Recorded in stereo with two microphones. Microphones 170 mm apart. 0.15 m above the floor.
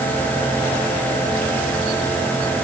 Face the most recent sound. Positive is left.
No sound to turn to.